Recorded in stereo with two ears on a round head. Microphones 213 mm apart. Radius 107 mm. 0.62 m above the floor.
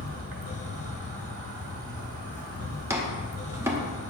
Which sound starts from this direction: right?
An insect, at 0.0 s.